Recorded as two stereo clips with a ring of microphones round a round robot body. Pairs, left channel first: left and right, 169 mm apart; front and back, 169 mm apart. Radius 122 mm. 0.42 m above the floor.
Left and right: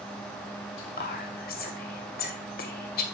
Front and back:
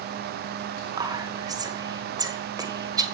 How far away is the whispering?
About 2 m.